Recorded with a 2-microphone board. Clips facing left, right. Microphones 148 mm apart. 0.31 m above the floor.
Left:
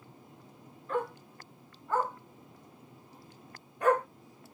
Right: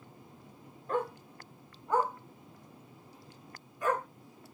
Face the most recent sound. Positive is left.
turn(degrees=70)  # may be behind; listen again after turning